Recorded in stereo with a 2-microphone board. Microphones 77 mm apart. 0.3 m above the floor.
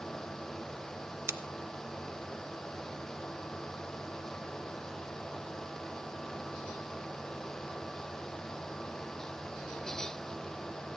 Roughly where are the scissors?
Right.